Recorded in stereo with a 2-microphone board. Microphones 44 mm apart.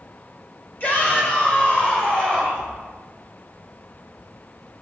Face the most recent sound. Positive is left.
turn(degrees=20)  # may be behind; listen again after turning